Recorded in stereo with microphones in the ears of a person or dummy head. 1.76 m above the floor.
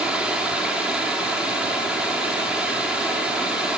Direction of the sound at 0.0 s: 5° right (ahead or behind).